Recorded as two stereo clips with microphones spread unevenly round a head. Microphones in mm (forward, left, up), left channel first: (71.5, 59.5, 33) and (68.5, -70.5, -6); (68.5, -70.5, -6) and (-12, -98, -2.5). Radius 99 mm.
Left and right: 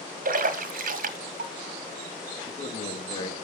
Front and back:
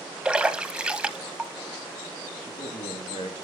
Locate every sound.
0.2 s a splash: 80° right, 2 m
2.4 s a man speaking: 45° left, 3 m